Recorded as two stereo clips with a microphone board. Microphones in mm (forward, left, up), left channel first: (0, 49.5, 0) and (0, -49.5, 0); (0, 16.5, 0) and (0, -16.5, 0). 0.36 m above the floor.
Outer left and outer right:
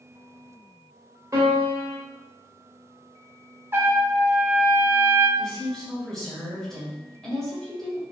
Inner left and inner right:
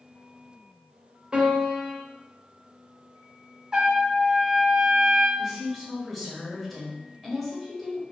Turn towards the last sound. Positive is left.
turn(degrees=5)  # may be behind; listen again after turning